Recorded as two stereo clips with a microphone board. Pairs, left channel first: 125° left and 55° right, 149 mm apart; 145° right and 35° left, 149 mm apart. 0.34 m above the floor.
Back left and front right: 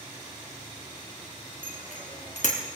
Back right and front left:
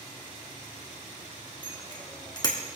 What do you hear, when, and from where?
1.6 s a bicycle bell: 155° left, 3 m